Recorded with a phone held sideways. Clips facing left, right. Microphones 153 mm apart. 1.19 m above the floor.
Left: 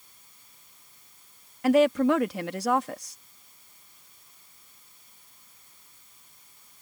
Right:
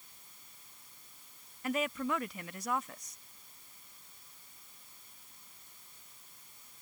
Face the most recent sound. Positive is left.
turn(degrees=80)